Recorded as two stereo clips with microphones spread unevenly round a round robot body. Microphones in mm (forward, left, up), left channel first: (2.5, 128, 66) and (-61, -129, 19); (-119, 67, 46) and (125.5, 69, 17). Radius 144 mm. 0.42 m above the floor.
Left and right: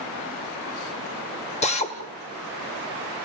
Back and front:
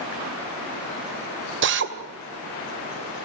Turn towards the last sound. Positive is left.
turn(degrees=5)